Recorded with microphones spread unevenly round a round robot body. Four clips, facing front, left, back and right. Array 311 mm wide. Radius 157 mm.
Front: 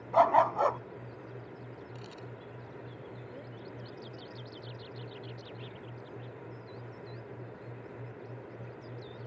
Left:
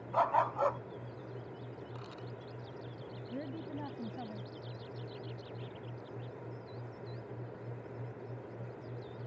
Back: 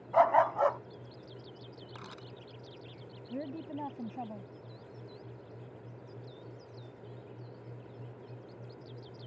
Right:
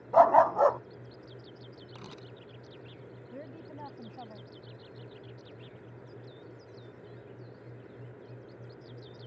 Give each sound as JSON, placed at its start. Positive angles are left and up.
{"t": 0.1, "sound": "a dog barking", "azimuth_deg": -70}
{"t": 1.9, "sound": "a camera shutter", "azimuth_deg": -95}
{"t": 3.3, "sound": "a woman speaking", "azimuth_deg": 155}